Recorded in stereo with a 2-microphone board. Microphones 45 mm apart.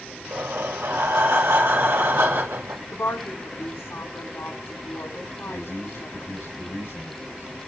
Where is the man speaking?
80° left, 7.5 m.